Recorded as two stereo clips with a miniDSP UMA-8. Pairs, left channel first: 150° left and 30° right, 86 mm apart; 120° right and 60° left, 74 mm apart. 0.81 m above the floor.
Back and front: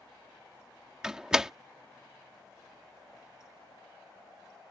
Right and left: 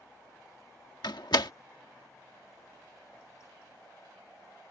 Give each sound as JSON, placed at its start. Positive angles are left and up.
{"t": 1.0, "sound": "a door slam", "azimuth_deg": -110}